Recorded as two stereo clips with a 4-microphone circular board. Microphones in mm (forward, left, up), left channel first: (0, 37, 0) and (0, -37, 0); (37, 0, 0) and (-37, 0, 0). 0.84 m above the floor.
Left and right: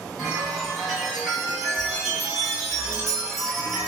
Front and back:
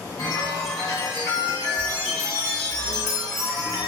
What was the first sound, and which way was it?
A chime, 5° left.